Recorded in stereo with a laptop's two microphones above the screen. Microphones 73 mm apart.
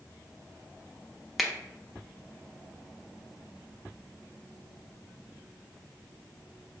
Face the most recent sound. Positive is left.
turn(degrees=-5)  # may be behind; listen again after turning